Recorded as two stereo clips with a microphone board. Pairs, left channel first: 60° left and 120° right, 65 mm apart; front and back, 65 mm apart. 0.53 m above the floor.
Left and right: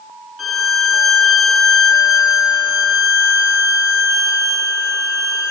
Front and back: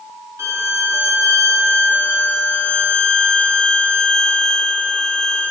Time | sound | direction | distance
0.4 | a violin | 150° left | 1.1 m